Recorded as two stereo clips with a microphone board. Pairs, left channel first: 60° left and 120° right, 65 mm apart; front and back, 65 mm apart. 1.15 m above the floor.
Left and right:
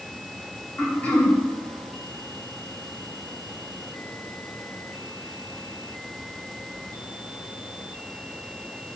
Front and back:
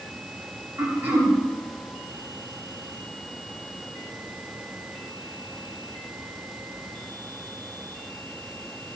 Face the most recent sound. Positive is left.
turn(degrees=125)